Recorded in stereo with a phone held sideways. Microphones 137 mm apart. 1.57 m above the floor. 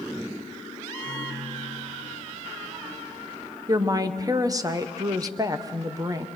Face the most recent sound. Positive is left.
turn(degrees=-25)  # may be behind; listen again after turning